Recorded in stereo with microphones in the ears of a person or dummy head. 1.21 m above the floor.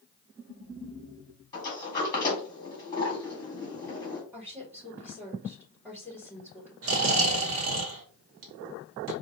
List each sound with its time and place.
1.5 s a sliding door: 15° left (ahead or behind), 1.5 m
4.3 s a woman speaking: 15° right (ahead or behind), 2.5 m
6.8 s snoring: 55° right (ahead or behind), 1.2 m